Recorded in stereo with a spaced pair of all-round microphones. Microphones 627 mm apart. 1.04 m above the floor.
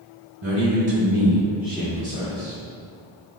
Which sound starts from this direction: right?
A man speaking, at 0.4 s.